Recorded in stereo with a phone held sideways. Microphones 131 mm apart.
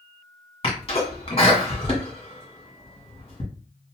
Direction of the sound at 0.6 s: 45° left (ahead or behind).